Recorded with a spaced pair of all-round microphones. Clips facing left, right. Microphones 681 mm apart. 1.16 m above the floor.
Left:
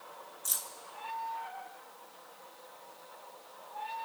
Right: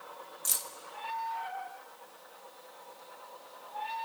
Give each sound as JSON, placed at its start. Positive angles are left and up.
{"t": 0.5, "sound": "keys jangling", "side_deg": -50, "distance_m": 0.7}